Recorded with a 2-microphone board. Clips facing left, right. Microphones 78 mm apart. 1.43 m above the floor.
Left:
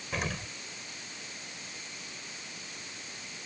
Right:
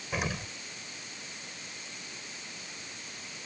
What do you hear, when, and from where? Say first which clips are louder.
0.1 s an explosion: right 1 dB; 5° right (ahead or behind)